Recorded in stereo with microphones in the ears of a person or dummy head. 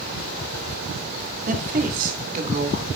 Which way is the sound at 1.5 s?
40° right (ahead or behind).